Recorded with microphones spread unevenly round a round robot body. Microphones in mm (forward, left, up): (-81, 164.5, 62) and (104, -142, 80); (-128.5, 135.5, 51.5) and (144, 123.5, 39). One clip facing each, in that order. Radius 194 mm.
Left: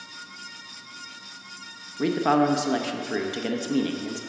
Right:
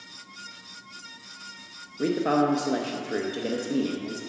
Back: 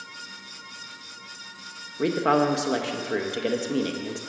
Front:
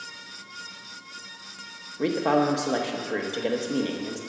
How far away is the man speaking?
About 0.7 m.